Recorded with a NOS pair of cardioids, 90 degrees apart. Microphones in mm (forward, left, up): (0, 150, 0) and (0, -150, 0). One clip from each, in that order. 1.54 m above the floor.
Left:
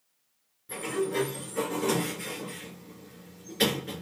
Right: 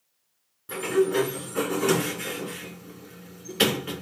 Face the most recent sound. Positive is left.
turn(degrees=-50)